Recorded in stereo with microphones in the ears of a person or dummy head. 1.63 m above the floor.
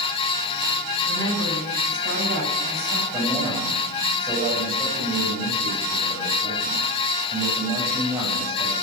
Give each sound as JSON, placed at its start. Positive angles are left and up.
{"t": 1.1, "sound": "a woman speaking", "side_deg": -60, "distance_m": 8.0}
{"t": 3.1, "sound": "a man speaking", "side_deg": -25, "distance_m": 8.0}